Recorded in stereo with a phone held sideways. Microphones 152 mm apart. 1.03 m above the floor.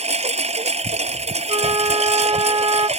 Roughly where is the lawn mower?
Right.